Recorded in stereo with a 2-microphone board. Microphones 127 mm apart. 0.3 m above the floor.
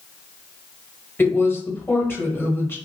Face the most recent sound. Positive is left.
turn(degrees=15)  # may be behind; listen again after turning